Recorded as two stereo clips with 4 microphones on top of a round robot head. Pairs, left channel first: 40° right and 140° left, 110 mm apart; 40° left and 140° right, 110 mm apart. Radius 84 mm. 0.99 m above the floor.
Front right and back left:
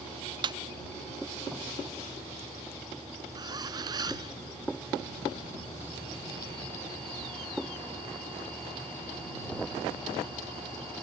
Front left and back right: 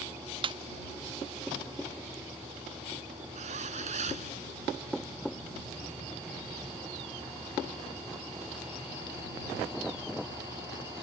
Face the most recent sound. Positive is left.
turn(degrees=-165)